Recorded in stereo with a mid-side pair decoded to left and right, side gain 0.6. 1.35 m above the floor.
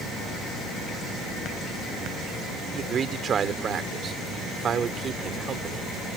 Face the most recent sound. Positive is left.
turn(degrees=-40)